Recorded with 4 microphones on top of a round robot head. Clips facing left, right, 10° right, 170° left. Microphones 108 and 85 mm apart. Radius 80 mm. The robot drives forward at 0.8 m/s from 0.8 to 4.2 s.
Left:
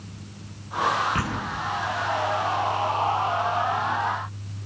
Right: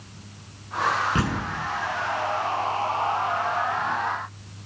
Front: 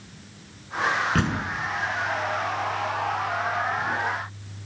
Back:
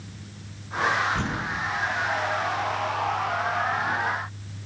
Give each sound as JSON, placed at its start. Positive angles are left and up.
{"t": 1.1, "sound": "a door slam", "azimuth_deg": -25, "distance_m": 4.5}